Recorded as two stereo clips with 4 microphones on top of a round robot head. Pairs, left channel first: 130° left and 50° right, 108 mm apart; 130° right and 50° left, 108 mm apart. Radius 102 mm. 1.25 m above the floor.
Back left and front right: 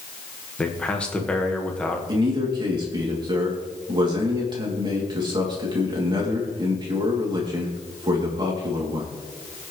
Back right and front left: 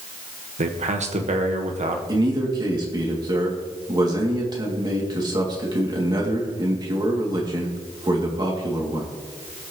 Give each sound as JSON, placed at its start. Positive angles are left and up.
{"t": 0.6, "sound": "a man speaking", "azimuth_deg": 50, "distance_m": 1.7}
{"t": 2.1, "sound": "a man speaking", "azimuth_deg": 0, "distance_m": 3.0}